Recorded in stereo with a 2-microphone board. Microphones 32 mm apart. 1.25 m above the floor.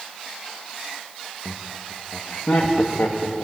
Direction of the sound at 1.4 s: 35° left (ahead or behind).